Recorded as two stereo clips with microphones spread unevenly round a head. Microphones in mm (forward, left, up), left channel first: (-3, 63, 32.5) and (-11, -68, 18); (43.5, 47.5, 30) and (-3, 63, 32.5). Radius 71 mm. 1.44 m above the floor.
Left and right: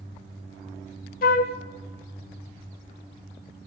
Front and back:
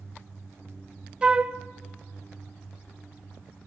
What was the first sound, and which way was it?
A flute, 90° left.